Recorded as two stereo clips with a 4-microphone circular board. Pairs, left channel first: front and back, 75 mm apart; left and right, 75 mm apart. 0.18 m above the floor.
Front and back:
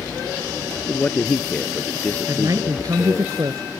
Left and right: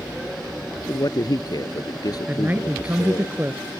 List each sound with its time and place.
0.9 s a man speaking: 70° left
2.3 s a man speaking: 150° right